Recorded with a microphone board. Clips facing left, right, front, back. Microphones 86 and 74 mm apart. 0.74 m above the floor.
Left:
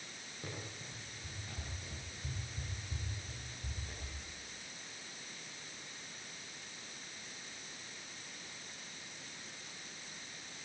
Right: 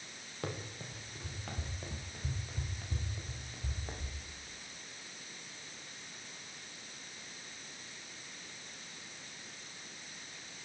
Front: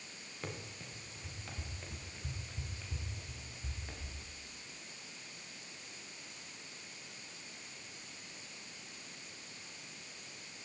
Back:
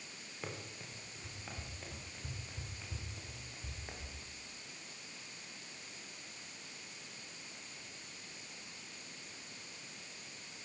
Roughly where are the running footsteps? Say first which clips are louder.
Right 6 dB, front 1 dB; right.